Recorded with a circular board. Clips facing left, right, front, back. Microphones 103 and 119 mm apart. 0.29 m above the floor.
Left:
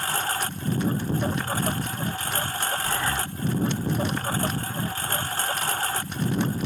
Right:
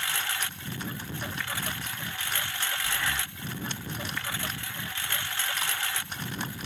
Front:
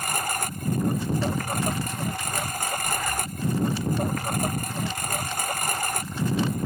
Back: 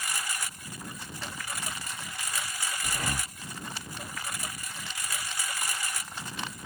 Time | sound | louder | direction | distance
0.0 | a lawn mower | left 6 dB, front 8 dB | 40° left | ?
2.8 | breathing | left 5 dB, front 6 dB | 155° left | ?